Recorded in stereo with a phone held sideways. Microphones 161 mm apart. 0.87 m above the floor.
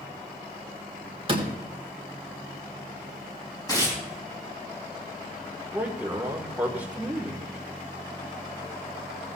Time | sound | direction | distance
1.3 | a door slam | 35° right (ahead or behind) | 2.5 m
3.7 | tearing paper | 25° left (ahead or behind) | 4 m
5.7 | a man speaking | 10° right (ahead or behind) | 2.5 m